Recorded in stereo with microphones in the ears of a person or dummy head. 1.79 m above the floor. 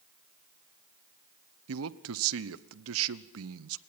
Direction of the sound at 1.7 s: 75° right (ahead or behind).